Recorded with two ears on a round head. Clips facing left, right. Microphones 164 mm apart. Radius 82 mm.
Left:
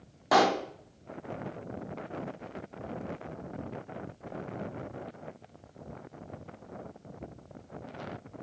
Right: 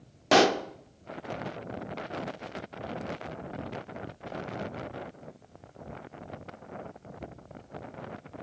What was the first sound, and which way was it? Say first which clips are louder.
A pop: right 2 dB; 30° right (ahead or behind).